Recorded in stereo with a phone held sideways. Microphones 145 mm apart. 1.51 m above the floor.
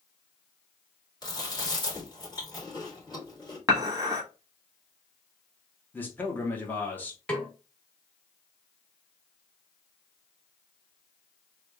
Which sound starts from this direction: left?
Chewing, at 1.2 s.